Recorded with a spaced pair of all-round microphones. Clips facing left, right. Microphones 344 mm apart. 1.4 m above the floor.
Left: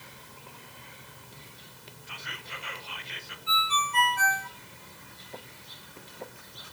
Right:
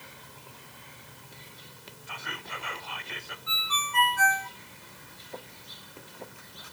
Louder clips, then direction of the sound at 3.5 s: Left 9 dB; 40° left (ahead or behind).